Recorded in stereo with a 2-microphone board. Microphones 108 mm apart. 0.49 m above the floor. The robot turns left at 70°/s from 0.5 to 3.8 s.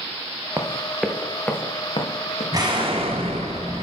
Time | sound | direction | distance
0.6 | running footsteps | 30° right (ahead or behind) | 1.4 m
2.5 | an explosion | 35° right | 1.9 m